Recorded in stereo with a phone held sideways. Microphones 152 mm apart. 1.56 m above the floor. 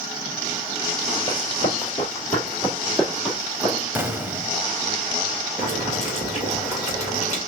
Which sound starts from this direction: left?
Running footsteps, at 1.3 s.